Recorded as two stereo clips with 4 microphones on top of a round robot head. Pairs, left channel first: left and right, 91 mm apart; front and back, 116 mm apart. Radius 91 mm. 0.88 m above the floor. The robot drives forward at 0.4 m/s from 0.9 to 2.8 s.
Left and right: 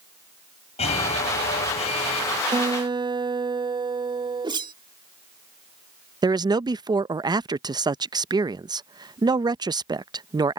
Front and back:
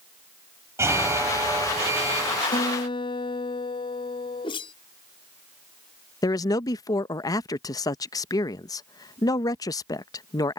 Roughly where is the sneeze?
No sneeze in this recording.